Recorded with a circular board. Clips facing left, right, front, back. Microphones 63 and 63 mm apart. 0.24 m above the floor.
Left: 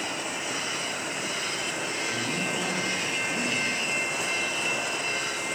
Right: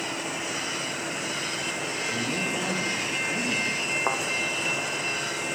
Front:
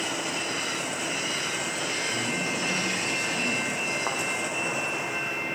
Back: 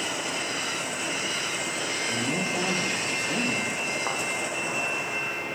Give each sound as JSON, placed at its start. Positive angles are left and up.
{"t": 2.1, "sound": "a man speaking", "azimuth_deg": -170, "distance_m": 7.5}
{"t": 4.1, "sound": "a thud", "azimuth_deg": -85, "distance_m": 5.0}